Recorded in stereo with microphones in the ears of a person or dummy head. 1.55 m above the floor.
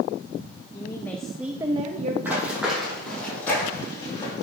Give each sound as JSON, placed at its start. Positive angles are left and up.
{"t": 0.7, "sound": "a woman speaking", "side_deg": 25, "distance_m": 0.8}
{"t": 2.2, "sound": "running footsteps", "side_deg": -15, "distance_m": 3.5}